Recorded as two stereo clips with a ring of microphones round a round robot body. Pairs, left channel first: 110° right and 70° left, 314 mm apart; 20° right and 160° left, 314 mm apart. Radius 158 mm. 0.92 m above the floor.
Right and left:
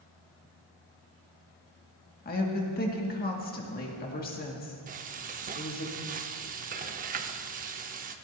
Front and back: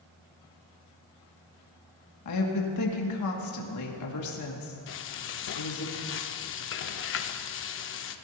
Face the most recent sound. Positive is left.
turn(degrees=10)